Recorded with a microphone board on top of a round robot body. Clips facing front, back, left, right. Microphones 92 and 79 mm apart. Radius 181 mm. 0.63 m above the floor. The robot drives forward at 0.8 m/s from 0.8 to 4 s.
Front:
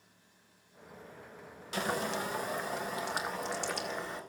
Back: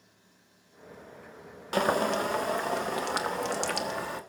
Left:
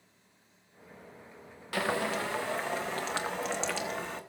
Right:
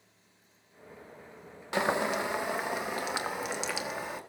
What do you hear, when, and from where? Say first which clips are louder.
1.7 s boiling: back 8 dB, right 2 dB; 155° right, 1.4 m; by 4.2 s 170° right, 3 m